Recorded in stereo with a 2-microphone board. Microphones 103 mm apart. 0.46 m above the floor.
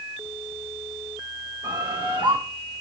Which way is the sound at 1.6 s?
50° right (ahead or behind).